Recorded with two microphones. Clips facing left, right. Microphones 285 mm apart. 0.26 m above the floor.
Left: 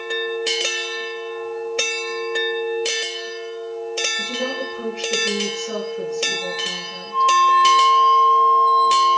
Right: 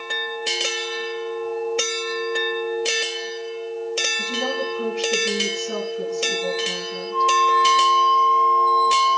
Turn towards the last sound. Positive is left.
turn(degrees=50)  # may be behind; listen again after turning